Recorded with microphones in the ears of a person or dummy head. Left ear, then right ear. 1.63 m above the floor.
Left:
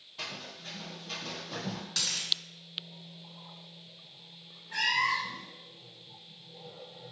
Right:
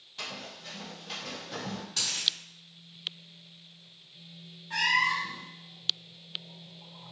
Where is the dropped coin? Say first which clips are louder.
Even; 55° left (ahead or behind), 1.9 m.